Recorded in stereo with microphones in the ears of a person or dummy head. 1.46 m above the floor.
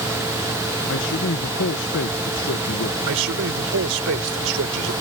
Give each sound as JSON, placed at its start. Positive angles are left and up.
{"t": 0.9, "sound": "a man speaking", "side_deg": 60}
{"t": 3.1, "sound": "a man speaking", "side_deg": -75}